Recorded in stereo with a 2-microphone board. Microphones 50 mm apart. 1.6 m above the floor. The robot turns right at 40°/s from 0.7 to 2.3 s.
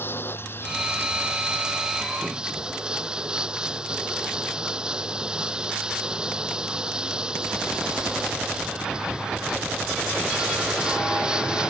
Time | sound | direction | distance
0.0 | running water | 130° left | ?